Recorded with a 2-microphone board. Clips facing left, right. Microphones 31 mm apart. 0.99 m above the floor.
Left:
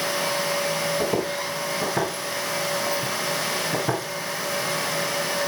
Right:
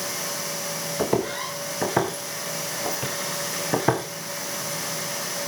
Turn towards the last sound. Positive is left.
turn(degrees=-50)  # may be behind; listen again after turning